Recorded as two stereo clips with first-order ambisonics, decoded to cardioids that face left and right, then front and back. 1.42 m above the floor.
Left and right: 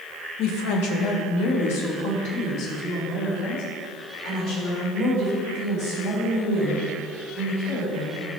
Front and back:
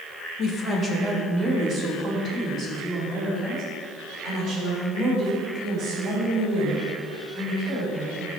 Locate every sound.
0.4 s a woman speaking: 55° left, 0.9 m; by 8.3 s 110° left, 8.5 m